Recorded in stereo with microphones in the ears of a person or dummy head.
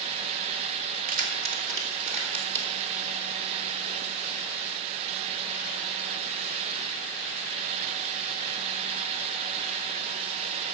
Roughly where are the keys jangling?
Right.